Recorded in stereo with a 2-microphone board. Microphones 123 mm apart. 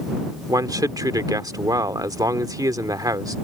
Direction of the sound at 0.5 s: 30° right (ahead or behind).